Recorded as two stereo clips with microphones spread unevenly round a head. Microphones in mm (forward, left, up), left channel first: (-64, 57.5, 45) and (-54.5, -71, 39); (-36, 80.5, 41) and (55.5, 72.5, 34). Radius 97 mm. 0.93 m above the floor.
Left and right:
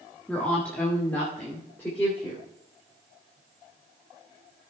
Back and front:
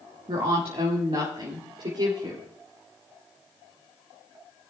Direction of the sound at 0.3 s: 10° left.